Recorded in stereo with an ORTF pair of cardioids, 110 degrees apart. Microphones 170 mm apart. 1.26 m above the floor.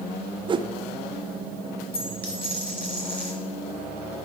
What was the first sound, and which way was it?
A whoosh, 30° right.